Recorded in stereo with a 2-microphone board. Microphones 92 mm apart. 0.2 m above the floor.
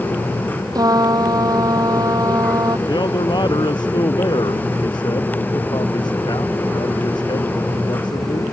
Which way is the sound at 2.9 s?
50° left (ahead or behind).